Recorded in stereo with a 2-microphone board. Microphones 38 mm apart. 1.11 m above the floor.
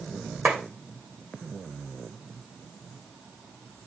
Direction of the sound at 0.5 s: 35° right (ahead or behind).